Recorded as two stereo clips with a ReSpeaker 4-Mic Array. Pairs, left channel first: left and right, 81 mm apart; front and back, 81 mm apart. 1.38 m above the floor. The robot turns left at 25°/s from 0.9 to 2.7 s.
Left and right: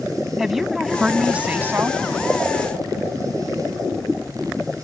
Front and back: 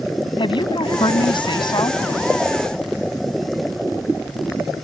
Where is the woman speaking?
5° right; by 2.0 s 30° right.